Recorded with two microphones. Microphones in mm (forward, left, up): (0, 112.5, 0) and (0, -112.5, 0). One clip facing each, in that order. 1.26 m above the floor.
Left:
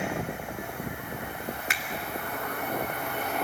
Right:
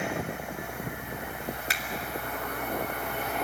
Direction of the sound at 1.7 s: 40° right (ahead or behind).